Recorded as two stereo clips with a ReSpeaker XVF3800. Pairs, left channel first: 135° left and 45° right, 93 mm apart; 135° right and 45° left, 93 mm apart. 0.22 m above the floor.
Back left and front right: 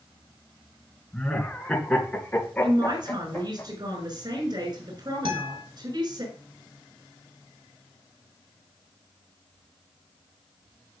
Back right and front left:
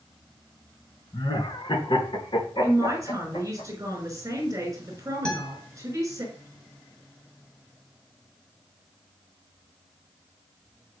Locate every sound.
1.1 s laughter: 140° right, 2.5 m; by 3.6 s 155° right, 4 m
2.6 s a man speaking: 10° right, 6.5 m
5.2 s a guitar: 55° right, 4 m